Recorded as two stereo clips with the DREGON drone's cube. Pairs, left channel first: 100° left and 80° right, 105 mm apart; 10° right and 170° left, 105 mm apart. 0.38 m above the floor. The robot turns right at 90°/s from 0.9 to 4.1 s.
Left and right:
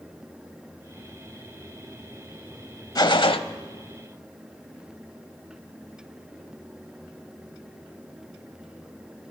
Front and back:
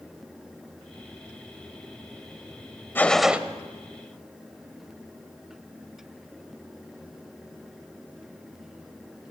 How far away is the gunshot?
About 0.8 m.